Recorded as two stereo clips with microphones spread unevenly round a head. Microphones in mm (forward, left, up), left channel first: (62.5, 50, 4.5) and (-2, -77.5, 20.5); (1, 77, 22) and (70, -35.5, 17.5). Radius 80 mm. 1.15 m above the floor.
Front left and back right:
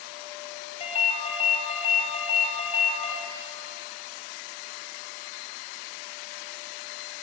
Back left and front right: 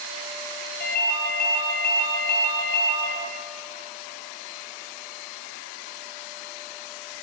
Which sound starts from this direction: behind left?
A ringtone, at 0.8 s.